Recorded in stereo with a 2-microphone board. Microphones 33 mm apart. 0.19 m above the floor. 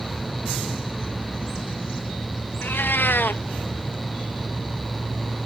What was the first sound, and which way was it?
A cat meowing, 85° left.